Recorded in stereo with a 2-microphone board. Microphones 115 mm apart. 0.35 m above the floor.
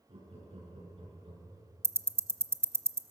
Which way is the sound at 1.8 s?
25° right (ahead or behind).